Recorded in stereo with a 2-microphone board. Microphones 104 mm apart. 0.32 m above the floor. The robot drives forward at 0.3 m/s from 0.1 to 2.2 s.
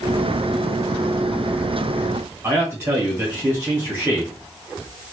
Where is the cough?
I don't hear a cough.